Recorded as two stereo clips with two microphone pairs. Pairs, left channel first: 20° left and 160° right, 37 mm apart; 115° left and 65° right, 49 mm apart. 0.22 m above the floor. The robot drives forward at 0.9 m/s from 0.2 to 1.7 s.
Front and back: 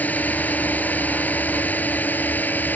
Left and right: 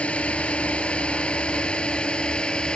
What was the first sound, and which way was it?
A drone, 55° left.